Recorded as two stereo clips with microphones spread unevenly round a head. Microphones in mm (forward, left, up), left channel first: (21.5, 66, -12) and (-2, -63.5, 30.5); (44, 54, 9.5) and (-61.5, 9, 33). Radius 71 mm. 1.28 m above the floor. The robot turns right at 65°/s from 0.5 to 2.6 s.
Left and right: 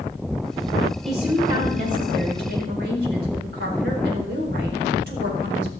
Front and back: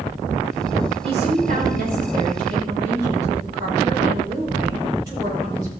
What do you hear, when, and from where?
1.0 s a woman speaking: 170° left, 4.5 m; by 5.7 s 90° right, 4.5 m